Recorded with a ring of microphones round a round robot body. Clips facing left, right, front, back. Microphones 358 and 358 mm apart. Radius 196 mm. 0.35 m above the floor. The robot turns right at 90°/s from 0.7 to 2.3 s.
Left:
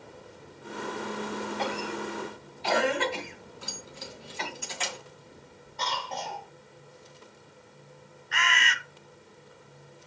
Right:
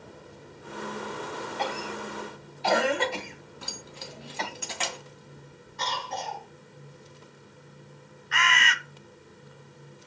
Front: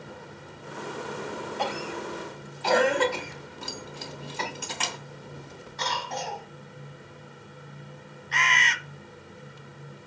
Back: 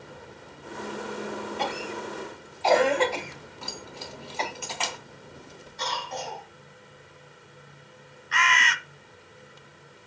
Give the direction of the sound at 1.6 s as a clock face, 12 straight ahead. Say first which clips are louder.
Left 2 dB, even; 4 o'clock.